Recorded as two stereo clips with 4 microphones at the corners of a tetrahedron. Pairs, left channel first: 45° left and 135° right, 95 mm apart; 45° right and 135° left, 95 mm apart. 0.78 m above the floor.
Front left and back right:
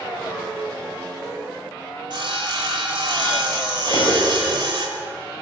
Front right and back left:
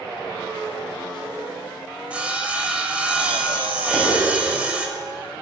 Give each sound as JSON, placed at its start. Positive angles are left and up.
{"t": 2.1, "sound": "sawing", "azimuth_deg": -150, "distance_m": 0.8}
{"t": 3.9, "sound": "cutlery clinking", "azimuth_deg": 45, "distance_m": 3.0}